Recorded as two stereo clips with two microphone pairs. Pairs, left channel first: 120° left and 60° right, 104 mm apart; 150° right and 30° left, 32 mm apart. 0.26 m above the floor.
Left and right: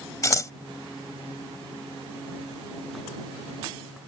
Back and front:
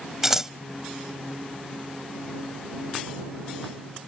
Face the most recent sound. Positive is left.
turn(degrees=100)